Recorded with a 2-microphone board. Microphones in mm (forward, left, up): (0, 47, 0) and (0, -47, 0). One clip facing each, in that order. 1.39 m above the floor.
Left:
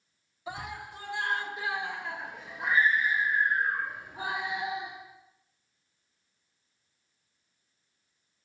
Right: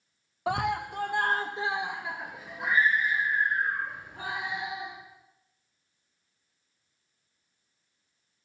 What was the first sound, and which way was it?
A scream, 65° right (ahead or behind).